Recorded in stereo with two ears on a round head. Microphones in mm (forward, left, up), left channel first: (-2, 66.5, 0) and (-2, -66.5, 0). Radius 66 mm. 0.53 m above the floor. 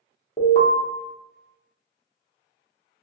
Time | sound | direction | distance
0.4 | an alarm | 35° left (ahead or behind) | 0.8 m